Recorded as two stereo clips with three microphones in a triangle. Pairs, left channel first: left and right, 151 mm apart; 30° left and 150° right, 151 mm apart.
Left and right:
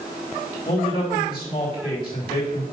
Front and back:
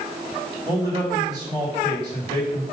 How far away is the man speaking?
About 3.5 m.